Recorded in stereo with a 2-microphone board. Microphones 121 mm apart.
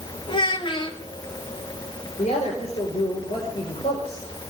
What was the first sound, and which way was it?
A child speaking, 45° left (ahead or behind).